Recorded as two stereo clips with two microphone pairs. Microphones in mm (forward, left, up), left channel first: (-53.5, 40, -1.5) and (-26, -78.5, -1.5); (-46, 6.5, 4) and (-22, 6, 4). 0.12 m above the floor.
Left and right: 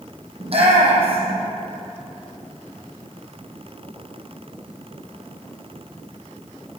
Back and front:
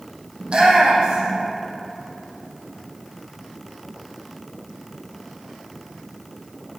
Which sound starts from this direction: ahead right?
A shout, at 0.4 s.